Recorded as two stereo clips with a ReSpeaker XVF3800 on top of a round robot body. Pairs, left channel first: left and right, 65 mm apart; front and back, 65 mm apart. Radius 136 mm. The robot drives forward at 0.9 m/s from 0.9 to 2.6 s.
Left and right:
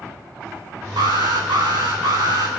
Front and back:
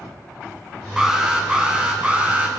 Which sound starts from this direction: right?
An alarm, at 1.0 s.